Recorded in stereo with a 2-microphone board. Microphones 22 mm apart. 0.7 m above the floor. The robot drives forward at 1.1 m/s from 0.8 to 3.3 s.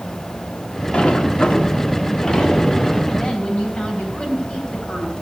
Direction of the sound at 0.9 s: 50° left (ahead or behind).